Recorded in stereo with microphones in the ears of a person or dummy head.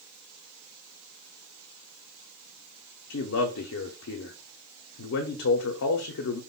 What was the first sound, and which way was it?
A man speaking, 70° left (ahead or behind).